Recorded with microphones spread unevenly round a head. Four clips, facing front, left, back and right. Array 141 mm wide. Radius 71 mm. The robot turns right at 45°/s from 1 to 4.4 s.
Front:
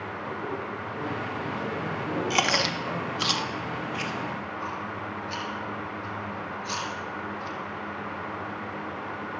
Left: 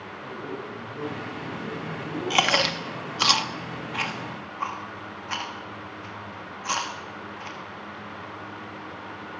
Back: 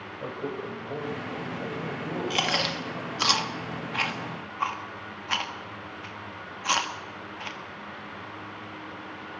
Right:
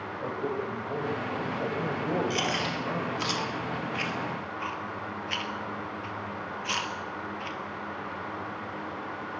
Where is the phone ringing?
No phone ringing in this recording.